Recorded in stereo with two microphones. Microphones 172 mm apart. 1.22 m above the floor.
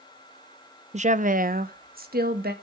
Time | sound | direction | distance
0.9 | a woman speaking | 40° right (ahead or behind) | 0.6 m